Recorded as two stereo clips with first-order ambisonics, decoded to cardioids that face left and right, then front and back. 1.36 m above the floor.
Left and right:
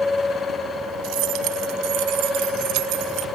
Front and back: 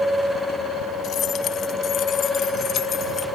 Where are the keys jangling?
55° right; by 3.2 s 65° right.